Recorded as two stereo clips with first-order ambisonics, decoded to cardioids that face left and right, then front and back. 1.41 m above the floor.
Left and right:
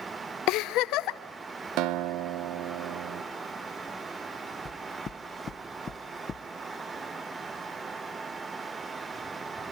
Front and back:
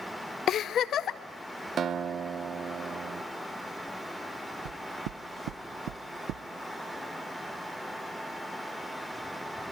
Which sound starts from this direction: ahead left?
A giggle, at 0.5 s.